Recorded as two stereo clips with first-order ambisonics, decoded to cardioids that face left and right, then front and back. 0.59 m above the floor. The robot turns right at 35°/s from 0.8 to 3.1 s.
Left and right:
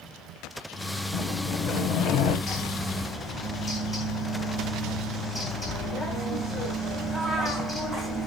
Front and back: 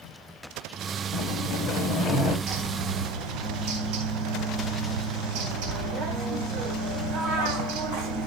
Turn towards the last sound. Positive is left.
turn(degrees=165)